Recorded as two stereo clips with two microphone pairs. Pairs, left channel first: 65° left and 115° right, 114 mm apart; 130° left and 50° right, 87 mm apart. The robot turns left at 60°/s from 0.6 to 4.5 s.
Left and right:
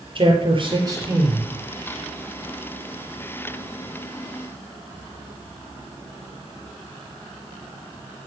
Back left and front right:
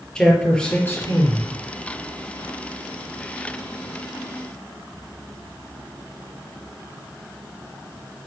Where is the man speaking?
150° right, 3.5 m; by 1.5 s 155° left, 3.5 m.